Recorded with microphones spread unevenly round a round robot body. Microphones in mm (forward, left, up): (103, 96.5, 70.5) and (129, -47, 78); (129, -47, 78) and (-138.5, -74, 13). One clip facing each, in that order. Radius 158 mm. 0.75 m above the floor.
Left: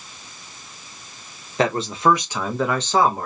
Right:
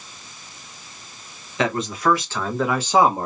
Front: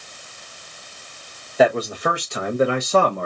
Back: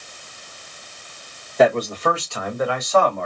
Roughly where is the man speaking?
Left.